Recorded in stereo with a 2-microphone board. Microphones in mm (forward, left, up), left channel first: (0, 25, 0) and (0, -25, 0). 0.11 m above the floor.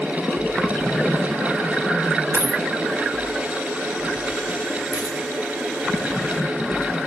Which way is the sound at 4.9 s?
50° left (ahead or behind).